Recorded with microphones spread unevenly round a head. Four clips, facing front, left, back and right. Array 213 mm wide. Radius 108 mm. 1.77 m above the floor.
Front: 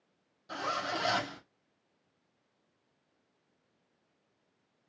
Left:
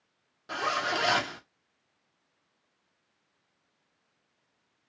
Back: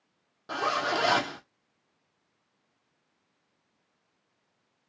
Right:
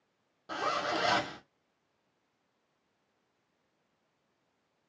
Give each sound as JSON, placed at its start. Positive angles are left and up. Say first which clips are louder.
{"t": 0.5, "sound": "a zipper", "louder": "left 2 dB, back 7 dB", "azimuth_deg": 175, "distance_m": 1.3}